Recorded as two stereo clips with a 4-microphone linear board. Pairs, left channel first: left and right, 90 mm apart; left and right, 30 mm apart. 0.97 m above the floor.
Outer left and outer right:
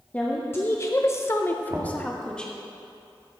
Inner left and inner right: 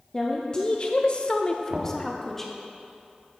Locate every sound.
0.1 s a woman speaking: 20° left (ahead or behind), 1.1 m; by 2.6 s 10° left (ahead or behind), 1.8 m
1.7 s knocking: 40° right (ahead or behind), 1.5 m